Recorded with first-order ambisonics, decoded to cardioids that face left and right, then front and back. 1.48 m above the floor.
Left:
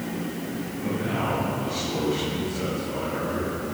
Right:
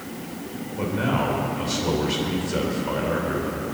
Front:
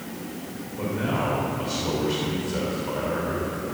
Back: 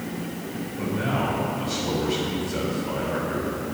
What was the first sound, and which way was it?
A man speaking, 80° right.